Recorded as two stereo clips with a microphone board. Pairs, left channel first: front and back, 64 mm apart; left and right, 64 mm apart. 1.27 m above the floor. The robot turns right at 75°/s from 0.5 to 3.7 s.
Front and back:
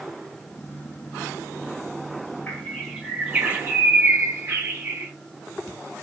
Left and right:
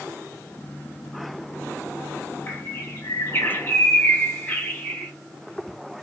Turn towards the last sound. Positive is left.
turn(degrees=145)